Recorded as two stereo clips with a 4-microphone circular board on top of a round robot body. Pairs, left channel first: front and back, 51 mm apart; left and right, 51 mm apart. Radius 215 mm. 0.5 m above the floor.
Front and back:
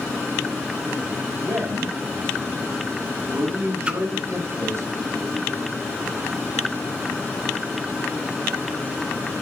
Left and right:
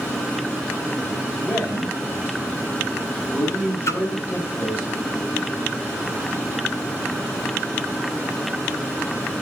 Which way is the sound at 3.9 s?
110° left.